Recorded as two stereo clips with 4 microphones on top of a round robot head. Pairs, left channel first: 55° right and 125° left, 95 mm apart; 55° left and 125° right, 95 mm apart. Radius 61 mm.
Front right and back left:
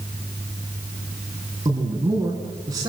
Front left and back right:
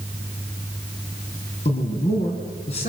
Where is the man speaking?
70° left, 4 m.